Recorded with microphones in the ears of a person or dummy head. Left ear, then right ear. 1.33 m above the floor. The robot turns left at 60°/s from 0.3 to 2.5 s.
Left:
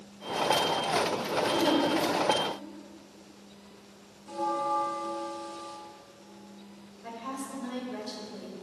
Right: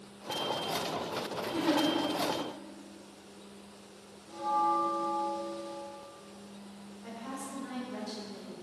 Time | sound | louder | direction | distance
1.5 | a giggle | left 2 dB | 70° left (ahead or behind) | 2 m
4.3 | a bell | even | 45° left (ahead or behind) | 1.2 m
7.0 | a woman speaking | left 4 dB | 10° left (ahead or behind) | 2 m